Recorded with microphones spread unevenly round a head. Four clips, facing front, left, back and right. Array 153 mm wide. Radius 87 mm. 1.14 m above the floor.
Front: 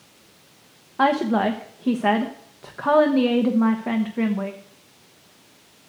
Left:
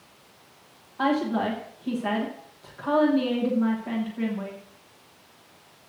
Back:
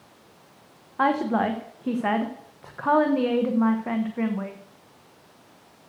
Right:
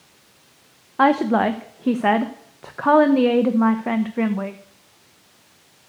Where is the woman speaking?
65° right, 1.0 m.